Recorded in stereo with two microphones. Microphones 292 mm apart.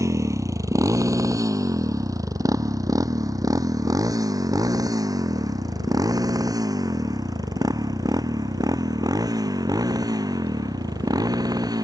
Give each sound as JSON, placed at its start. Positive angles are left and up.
{"t": 0.0, "sound": "a motorcycle", "side_deg": -10}